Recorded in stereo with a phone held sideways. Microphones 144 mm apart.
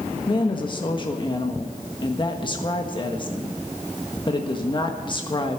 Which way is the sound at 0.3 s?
35° left (ahead or behind).